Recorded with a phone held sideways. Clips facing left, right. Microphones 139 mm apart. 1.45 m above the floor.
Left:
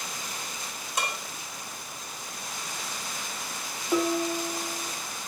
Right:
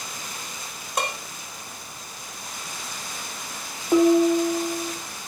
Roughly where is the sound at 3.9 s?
Right.